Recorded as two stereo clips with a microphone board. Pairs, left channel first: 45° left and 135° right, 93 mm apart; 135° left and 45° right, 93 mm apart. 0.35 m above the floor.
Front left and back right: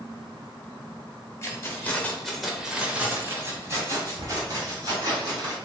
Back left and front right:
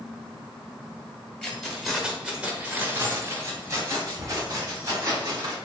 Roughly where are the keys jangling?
Ahead left.